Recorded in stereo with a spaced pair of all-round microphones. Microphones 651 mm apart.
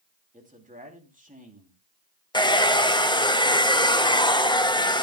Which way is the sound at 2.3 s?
5° left (ahead or behind).